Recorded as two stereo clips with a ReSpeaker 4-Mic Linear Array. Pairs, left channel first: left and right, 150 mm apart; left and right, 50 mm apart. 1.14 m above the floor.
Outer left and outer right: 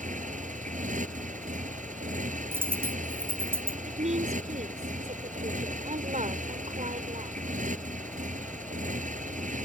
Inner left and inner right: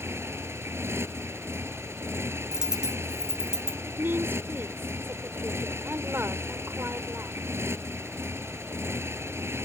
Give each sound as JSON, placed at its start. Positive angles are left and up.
{"t": 0.0, "sound": "a motorcycle", "side_deg": -60}
{"t": 2.5, "sound": "a dropped coin", "side_deg": -15}
{"t": 3.9, "sound": "a woman speaking", "side_deg": -50}